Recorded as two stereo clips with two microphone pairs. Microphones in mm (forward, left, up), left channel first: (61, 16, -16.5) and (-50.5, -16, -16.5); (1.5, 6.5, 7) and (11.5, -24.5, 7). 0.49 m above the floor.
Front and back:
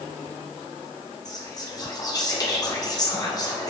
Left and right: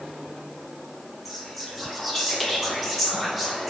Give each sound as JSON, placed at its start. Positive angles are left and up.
{"t": 1.2, "sound": "whispering", "azimuth_deg": 20, "distance_m": 0.8}